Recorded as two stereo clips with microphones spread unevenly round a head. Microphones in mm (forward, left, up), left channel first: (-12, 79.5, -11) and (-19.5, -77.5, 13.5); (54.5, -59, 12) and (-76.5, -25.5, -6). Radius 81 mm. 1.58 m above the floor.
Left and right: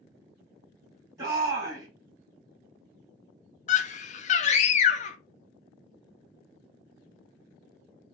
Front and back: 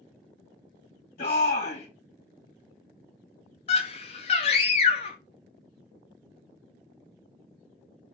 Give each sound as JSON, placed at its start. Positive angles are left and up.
{"t": 1.2, "sound": "a shout", "azimuth_deg": -20, "distance_m": 2.5}
{"t": 3.7, "sound": "a scream", "azimuth_deg": 45, "distance_m": 0.5}